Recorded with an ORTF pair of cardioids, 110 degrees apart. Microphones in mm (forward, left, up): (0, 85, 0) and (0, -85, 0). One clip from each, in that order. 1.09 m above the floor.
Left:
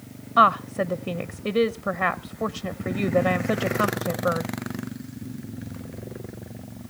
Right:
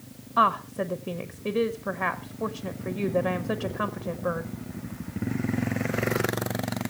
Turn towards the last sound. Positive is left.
turn(degrees=20)